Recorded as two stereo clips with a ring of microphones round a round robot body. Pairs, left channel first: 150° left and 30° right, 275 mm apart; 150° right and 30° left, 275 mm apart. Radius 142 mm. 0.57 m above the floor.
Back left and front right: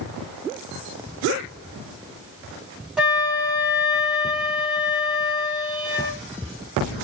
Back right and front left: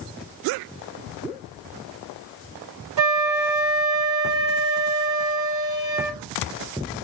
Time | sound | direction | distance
3.0 | a flute | 60° left | 1.6 m